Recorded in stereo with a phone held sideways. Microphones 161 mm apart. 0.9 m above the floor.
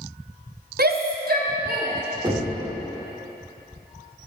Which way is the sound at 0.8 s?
65° right (ahead or behind).